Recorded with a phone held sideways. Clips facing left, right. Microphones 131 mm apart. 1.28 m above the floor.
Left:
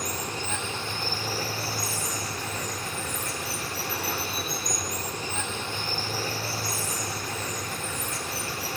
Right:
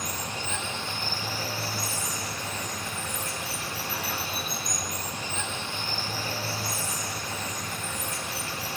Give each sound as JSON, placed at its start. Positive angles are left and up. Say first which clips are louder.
{"t": 0.0, "sound": "running water", "louder": "left 2 dB", "side_deg": 45, "distance_m": 3.5}